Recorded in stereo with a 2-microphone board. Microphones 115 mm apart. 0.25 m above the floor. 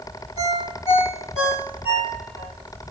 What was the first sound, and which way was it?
A ringtone, 60° left (ahead or behind).